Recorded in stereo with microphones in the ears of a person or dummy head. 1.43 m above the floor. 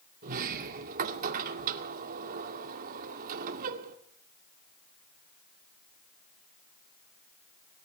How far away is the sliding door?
About 1.9 m.